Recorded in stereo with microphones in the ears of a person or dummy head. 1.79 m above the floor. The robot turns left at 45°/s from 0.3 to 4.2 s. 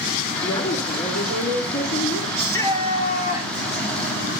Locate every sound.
0.4 s a woman speaking: 165° left, 3.5 m; by 2.2 s 80° left, 3.5 m
2.4 s a shout: 175° left, 4.5 m; by 3.7 s 115° left, 4.5 m